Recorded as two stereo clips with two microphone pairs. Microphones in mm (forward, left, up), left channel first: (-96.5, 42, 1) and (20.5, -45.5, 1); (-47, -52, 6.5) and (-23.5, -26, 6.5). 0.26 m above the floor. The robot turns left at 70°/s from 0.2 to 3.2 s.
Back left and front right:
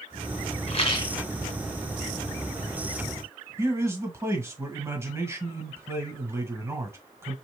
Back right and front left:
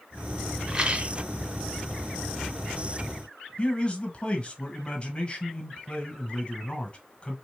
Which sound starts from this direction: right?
A man speaking, at 3.6 s.